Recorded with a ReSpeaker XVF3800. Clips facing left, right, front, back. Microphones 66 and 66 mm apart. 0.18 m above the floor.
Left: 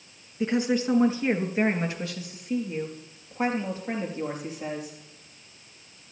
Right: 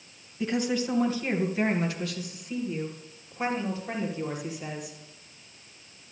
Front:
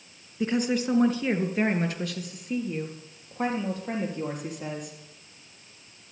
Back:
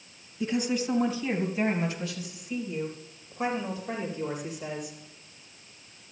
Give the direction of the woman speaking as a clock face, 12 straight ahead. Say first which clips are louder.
Left 3 dB, front 2 dB; 11 o'clock.